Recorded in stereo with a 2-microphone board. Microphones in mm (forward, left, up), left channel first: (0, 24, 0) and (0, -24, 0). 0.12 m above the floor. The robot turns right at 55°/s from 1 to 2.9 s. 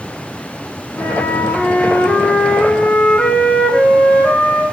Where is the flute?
65° left, 8 m; by 4.6 s 170° left, 8 m.